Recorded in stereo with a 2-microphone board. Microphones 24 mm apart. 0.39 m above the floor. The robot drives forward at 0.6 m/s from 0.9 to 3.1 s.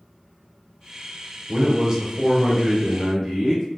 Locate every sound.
1.5 s a man speaking: 25° right (ahead or behind), 0.9 m; by 3.6 s 15° right (ahead or behind), 1.6 m